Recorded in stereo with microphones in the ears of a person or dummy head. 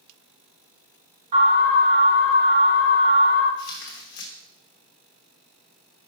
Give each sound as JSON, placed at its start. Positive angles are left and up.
{"t": 1.3, "sound": "an alarm", "side_deg": -35, "distance_m": 3.0}
{"t": 3.6, "sound": "tearing paper", "side_deg": 60, "distance_m": 1.2}